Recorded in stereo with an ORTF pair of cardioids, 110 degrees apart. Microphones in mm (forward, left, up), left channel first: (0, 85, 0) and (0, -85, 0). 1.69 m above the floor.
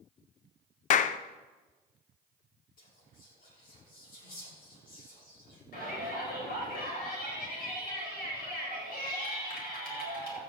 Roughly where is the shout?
Ahead left.